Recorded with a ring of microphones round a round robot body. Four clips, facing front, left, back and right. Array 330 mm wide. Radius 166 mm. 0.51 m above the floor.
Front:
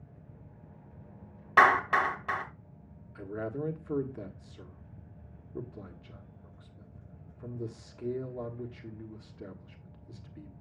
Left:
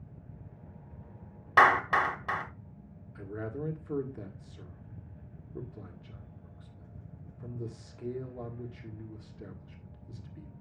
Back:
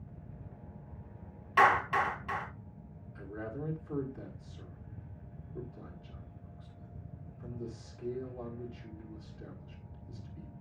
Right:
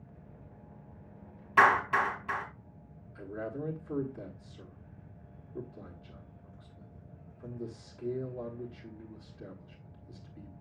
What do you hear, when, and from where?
1.6 s a clap: 50° left, 3 m
3.1 s a man speaking: 20° left, 1.6 m